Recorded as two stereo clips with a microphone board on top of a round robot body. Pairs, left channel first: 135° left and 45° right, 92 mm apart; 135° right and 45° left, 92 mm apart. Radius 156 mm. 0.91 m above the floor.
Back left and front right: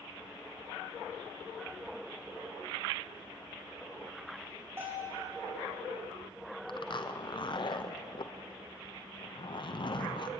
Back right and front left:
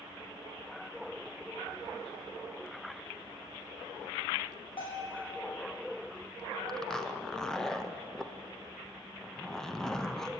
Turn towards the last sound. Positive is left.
turn(degrees=140)